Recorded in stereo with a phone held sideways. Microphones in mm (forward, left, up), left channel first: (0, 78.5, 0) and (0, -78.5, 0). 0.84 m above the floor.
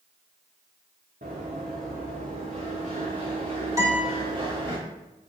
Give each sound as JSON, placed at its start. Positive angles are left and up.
{"t": 1.2, "sound": "running footsteps", "side_deg": -60, "distance_m": 3.5}
{"t": 3.8, "sound": "a guitar", "side_deg": -20, "distance_m": 3.0}